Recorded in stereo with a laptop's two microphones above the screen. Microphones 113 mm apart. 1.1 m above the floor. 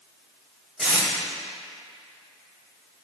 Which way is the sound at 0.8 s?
5° left (ahead or behind).